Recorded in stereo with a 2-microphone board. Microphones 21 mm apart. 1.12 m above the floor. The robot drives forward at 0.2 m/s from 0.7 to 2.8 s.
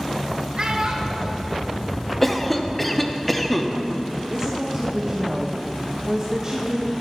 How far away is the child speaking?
About 1.2 m.